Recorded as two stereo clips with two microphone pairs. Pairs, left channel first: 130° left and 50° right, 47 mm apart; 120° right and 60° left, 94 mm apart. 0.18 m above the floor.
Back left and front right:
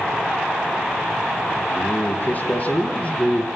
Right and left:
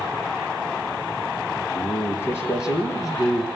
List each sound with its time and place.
1.8 s a man speaking: 170° left, 3 m; by 3.5 s 165° right, 4 m